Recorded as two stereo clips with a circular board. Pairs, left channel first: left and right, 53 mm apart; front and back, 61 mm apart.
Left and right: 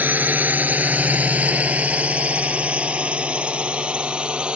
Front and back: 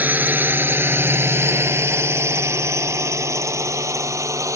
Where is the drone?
130° right; by 4.6 s 160° right.